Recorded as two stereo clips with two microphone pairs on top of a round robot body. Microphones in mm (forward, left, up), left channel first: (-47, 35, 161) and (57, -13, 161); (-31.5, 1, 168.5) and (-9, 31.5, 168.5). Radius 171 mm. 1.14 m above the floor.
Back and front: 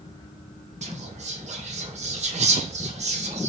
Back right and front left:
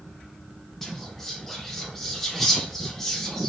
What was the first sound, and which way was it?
Whispering, 45° right.